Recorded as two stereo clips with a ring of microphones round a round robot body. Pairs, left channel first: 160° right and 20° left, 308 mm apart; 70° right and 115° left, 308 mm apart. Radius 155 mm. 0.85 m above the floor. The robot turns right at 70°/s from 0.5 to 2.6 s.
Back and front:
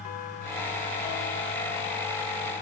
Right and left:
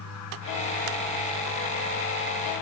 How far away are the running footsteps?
I don't hear running footsteps.